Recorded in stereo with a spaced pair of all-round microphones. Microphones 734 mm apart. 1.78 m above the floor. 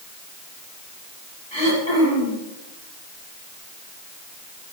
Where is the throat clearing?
35° left (ahead or behind), 8.5 m.